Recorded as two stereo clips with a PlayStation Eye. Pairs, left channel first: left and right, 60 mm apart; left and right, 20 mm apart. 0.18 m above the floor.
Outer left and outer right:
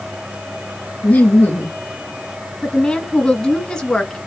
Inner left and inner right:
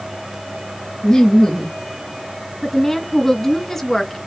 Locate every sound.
1.0 s laughter: 25° left (ahead or behind), 2.5 m
2.6 s a woman speaking: 10° left (ahead or behind), 1.6 m